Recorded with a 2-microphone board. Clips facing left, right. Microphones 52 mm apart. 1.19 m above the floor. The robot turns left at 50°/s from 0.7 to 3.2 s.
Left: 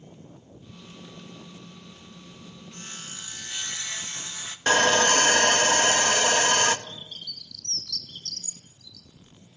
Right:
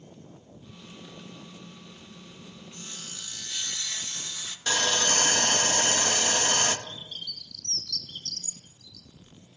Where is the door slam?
I don't hear a door slam.